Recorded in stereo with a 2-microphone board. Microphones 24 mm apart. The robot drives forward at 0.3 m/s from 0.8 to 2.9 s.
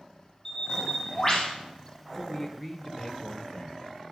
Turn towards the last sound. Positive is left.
turn(degrees=5)  # may be behind; listen again after turning